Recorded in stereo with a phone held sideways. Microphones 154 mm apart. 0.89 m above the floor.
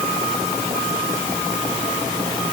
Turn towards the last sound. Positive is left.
No sound to turn to.